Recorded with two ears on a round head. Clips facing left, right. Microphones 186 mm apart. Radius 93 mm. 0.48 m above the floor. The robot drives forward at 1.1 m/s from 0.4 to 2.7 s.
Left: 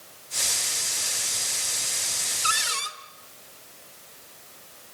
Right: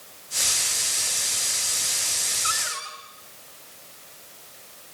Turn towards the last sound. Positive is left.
turn(degrees=45)  # may be behind; listen again after turning